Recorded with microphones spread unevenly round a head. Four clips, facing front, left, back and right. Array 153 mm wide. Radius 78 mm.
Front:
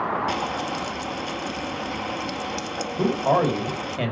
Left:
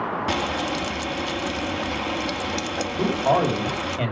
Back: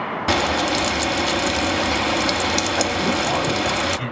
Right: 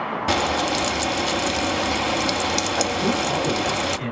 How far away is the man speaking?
About 5 m.